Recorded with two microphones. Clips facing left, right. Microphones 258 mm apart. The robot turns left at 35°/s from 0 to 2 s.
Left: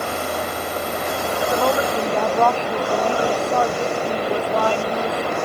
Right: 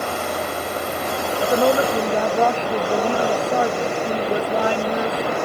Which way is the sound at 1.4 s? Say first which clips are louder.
Right 3 dB; 35° right (ahead or behind).